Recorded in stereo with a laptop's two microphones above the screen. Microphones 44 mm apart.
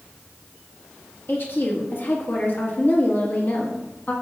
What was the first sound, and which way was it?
A woman speaking, 50° left (ahead or behind).